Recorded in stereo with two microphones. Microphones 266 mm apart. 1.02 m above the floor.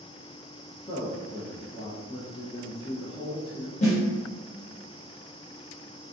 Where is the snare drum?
25° left (ahead or behind), 1.0 m.